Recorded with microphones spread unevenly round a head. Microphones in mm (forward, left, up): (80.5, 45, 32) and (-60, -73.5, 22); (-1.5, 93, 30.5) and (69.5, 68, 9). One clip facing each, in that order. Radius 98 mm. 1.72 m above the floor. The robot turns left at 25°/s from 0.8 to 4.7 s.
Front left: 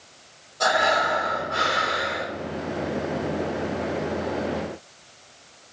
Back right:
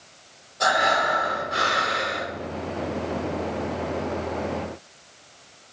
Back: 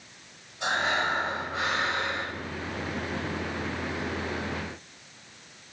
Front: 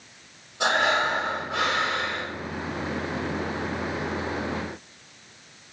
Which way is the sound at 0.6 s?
50° right.